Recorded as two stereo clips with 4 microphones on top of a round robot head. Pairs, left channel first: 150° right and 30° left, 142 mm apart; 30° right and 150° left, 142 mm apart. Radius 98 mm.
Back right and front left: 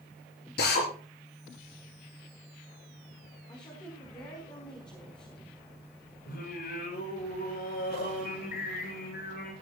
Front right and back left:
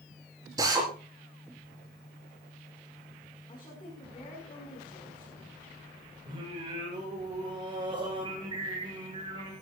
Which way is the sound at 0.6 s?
145° right.